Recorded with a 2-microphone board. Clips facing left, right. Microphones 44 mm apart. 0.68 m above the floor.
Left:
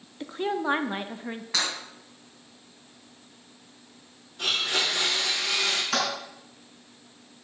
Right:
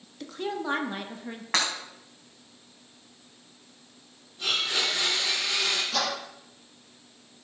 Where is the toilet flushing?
75° left (ahead or behind), 4.5 m.